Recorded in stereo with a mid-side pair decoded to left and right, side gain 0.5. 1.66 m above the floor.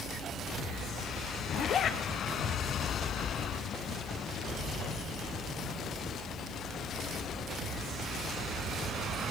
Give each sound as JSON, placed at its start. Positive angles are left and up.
{"t": 1.5, "sound": "a zipper", "azimuth_deg": 55, "distance_m": 1.2}